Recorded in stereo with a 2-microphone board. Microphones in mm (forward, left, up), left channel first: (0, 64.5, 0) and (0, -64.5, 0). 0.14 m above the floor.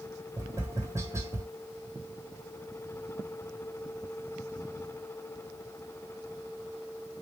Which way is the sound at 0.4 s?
20° right (ahead or behind).